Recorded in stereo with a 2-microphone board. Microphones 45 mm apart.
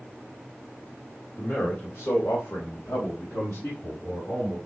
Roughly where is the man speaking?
Left.